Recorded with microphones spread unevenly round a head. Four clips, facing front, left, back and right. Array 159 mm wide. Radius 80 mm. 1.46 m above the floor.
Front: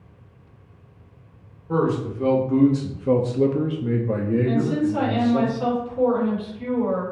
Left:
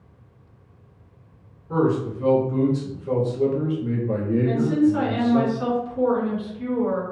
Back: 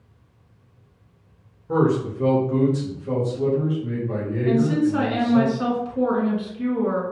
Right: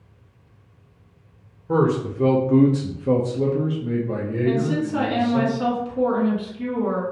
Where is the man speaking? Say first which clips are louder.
Right 1 dB, back 2 dB; 100° right, 1.2 m; by 5.5 s 35° left, 1.6 m.